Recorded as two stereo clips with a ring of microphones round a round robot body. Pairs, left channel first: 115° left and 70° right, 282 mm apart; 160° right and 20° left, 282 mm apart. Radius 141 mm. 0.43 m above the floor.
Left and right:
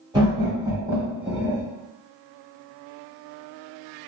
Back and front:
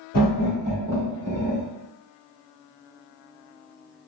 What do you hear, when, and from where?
0.1 s laughter: 130° right, 1.3 m; by 1.6 s 20° left, 1.4 m